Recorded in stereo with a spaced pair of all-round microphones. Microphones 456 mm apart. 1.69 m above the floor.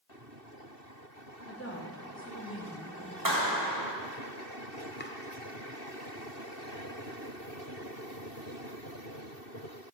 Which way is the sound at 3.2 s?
45° right (ahead or behind).